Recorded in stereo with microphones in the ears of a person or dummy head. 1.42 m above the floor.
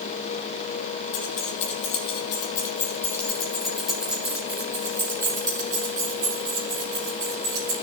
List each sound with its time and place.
1.1 s keys jangling: 45° left (ahead or behind), 1.8 m; by 7.7 s 30° right (ahead or behind), 4.5 m